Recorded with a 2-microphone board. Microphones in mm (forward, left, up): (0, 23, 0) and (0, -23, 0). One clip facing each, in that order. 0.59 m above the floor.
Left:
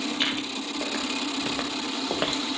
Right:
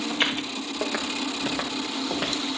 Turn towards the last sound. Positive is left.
turn(degrees=30)  # may be behind; listen again after turning